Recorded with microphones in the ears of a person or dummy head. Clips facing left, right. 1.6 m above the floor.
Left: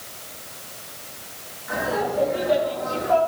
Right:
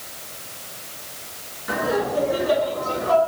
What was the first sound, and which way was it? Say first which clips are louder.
Laughter: right 2 dB; 60° right (ahead or behind).